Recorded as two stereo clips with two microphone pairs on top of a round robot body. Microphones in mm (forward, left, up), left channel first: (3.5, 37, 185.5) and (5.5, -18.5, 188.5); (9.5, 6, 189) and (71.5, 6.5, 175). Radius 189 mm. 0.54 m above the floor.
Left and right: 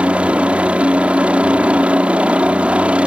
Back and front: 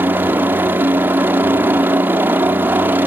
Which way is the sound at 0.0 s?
20° right.